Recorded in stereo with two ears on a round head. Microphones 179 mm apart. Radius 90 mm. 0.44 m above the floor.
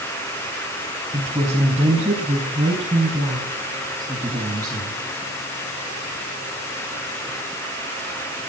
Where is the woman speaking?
20° right (ahead or behind), 3.5 m; by 5.0 s 10° right (ahead or behind), 5.5 m.